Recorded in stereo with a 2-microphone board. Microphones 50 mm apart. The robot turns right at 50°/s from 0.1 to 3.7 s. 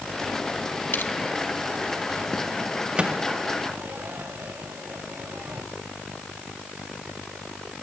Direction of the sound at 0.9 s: 55° left (ahead or behind).